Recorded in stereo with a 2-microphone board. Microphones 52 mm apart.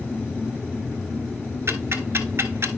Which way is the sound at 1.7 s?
55° right (ahead or behind).